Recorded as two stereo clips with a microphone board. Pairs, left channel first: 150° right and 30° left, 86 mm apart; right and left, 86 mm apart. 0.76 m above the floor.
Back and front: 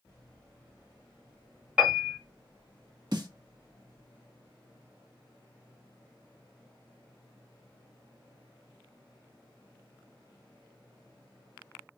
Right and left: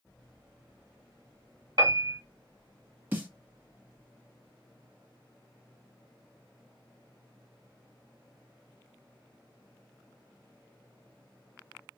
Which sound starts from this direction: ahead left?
A snare drum, at 3.1 s.